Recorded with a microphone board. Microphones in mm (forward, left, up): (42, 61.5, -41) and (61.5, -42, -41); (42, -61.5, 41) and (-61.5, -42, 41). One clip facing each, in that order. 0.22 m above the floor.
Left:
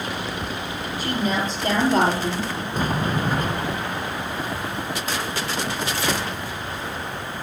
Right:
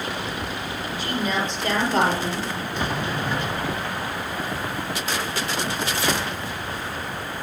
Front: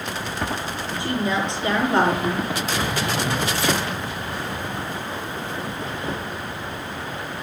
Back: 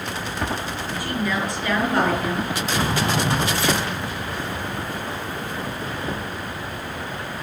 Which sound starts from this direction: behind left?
A sliding door, at 2.7 s.